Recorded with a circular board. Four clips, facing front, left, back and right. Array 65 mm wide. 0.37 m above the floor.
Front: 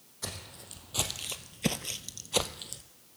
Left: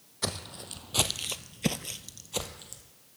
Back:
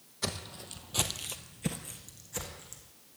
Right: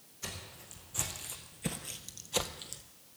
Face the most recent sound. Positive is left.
turn(degrees=-15)